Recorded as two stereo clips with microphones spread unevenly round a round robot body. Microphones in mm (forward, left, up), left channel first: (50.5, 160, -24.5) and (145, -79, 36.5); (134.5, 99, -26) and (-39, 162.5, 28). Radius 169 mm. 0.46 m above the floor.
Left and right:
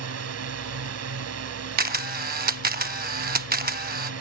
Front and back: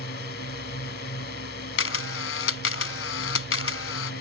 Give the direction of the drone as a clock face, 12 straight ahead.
1 o'clock.